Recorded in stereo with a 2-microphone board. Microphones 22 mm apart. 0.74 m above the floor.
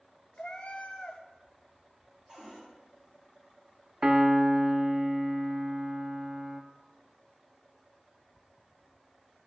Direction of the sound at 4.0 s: 40° right (ahead or behind).